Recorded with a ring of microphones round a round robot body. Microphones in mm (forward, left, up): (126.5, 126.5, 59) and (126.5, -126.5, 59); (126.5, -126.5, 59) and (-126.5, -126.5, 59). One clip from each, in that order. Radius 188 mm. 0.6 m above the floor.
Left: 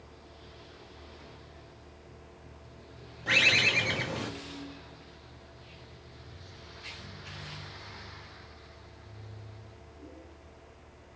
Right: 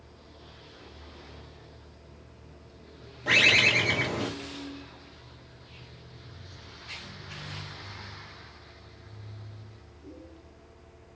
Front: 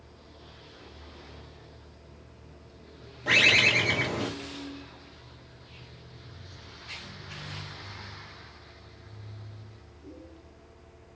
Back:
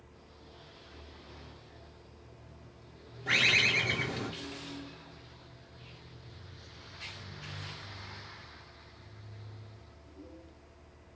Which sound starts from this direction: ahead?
A bird, at 3.3 s.